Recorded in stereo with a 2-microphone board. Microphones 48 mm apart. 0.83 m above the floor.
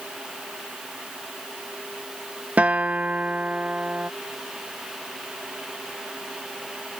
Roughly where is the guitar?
Right.